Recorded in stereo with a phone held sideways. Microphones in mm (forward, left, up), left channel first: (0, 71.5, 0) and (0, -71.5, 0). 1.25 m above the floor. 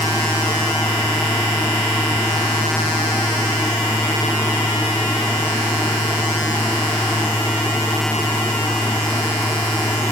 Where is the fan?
10° left (ahead or behind).